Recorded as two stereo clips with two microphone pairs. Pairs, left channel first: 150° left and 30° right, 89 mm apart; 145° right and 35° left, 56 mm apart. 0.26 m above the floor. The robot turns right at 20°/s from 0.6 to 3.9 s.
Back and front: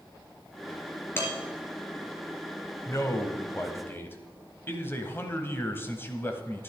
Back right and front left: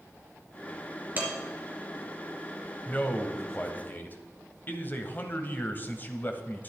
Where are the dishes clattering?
90° left, 3 m.